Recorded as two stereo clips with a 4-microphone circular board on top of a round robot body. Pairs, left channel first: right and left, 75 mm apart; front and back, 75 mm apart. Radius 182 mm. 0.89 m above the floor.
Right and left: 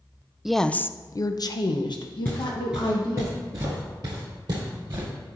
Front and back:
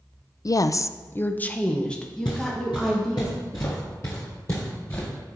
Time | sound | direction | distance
0.5 | a woman speaking | 10° left | 0.5 m
2.2 | footsteps | 25° right | 0.9 m